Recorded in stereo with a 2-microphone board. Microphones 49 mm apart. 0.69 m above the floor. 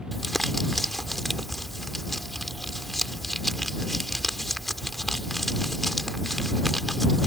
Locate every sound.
0.1 s crumpling: centre (ahead or behind)